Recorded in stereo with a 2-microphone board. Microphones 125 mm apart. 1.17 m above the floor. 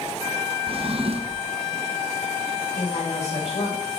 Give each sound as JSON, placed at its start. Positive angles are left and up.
{"t": 0.7, "sound": "a drawer", "side_deg": -50, "distance_m": 0.8}
{"t": 2.8, "sound": "a woman speaking", "side_deg": 55, "distance_m": 5.0}